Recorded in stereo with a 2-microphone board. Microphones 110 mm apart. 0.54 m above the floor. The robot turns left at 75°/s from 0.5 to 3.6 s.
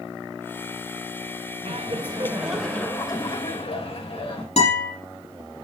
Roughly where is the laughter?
Right.